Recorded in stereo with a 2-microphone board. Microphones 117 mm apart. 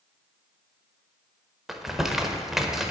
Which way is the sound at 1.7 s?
5° right (ahead or behind).